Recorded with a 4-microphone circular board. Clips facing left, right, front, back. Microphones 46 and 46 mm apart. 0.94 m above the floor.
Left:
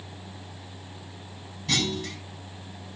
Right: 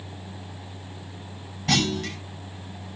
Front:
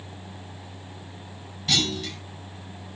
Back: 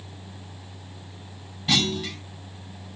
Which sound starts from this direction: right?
A clunk, at 1.7 s.